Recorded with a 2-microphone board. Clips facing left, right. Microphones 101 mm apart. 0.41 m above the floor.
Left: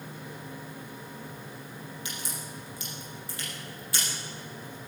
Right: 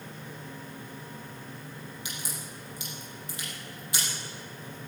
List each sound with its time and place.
2.0 s a crack: 20° right (ahead or behind), 6 m